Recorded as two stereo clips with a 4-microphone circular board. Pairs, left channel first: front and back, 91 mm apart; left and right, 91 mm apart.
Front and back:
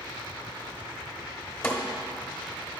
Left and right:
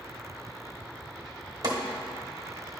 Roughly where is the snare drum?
Ahead right.